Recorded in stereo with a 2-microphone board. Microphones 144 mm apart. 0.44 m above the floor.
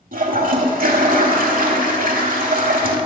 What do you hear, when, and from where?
0.1 s a toilet flushing: 80° right, 0.9 m